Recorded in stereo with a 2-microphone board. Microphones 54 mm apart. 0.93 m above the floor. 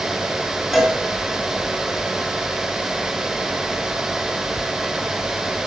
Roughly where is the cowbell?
Centre.